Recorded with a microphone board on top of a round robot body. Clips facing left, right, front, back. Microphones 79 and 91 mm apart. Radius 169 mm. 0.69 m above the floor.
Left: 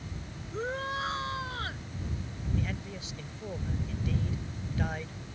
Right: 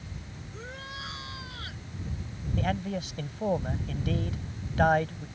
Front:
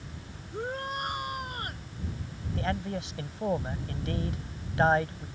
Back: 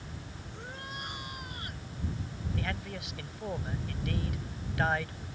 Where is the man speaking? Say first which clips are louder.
Right 9 dB, front 7 dB; 60° right.